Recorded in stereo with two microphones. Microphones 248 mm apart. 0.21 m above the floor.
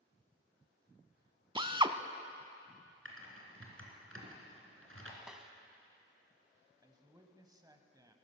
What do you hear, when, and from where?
1.6 s a drill: 20° right (ahead or behind), 0.5 m
3.0 s typing on a keyboard: 60° right (ahead or behind), 2.5 m
5.3 s a snare drum: 5° right (ahead or behind), 0.8 m
6.8 s a man speaking: 15° right (ahead or behind), 1.0 m